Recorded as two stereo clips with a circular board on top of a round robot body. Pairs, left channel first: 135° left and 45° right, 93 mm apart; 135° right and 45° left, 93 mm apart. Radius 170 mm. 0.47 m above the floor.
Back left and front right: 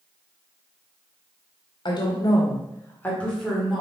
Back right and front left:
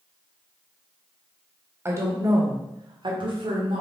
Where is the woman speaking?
105° left, 2 m; by 3.8 s 45° left, 2.5 m.